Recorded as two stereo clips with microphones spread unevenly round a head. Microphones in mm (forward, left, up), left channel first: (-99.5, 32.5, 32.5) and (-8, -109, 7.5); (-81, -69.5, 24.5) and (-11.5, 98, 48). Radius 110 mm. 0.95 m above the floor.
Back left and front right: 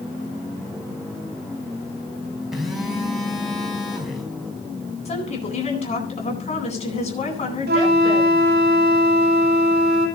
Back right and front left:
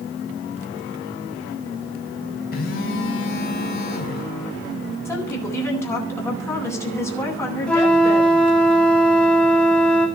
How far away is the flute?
About 3 m.